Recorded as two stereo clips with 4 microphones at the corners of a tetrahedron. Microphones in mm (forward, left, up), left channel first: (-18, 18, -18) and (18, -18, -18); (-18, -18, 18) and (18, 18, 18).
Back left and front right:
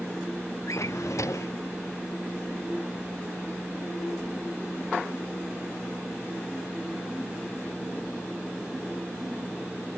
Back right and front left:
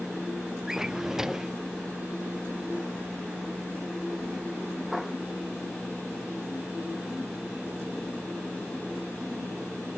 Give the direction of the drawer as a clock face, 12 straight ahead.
8 o'clock.